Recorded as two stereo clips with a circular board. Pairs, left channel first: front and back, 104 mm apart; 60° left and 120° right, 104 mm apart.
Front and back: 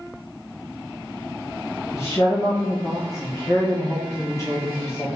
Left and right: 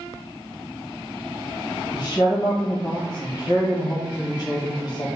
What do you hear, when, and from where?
1.9 s a woman speaking: 50° left, 1.0 m